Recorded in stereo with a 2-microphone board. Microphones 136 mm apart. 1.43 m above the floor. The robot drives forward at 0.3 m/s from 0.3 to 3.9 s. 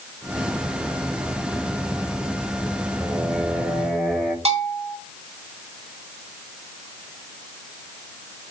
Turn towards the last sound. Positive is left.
turn(degrees=-55)  # may be behind; listen again after turning